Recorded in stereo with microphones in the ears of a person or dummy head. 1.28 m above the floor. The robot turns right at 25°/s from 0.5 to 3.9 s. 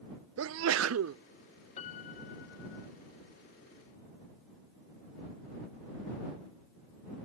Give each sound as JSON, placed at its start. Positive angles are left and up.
{"t": 0.4, "sound": "a sneeze", "side_deg": -75}
{"t": 1.8, "sound": "a piano", "side_deg": 40}